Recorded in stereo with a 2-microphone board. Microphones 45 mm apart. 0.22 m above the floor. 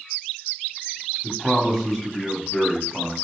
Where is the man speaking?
5° left (ahead or behind), 1.3 m.